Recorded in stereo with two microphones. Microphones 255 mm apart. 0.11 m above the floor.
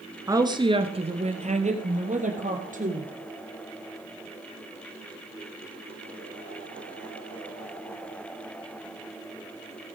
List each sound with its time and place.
0.3 s a woman speaking: 15° right (ahead or behind), 1.2 m; by 3.1 s 30° right (ahead or behind), 3.5 m